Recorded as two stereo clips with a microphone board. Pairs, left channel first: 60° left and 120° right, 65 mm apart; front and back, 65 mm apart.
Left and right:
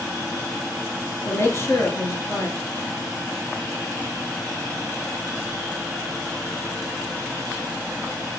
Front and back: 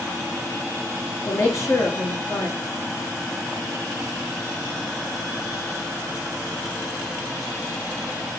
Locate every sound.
1.2 s a woman speaking: 25° left, 2 m